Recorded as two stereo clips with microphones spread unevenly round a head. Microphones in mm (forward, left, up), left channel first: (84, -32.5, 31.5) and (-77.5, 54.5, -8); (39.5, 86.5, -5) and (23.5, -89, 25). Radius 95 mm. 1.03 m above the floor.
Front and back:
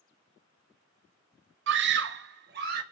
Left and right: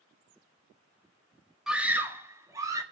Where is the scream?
175° left, 0.9 m; by 2.8 s 170° right, 2 m.